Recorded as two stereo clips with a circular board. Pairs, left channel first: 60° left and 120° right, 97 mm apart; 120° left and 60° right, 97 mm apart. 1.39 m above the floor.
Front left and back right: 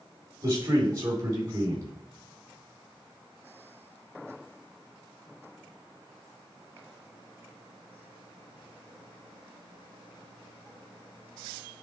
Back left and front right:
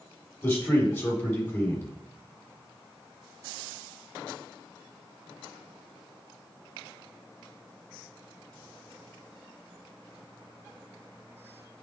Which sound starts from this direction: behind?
A man speaking, at 0.4 s.